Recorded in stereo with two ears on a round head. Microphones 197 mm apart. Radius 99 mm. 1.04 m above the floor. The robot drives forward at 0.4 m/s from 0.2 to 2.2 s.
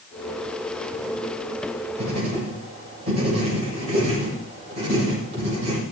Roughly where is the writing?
Right.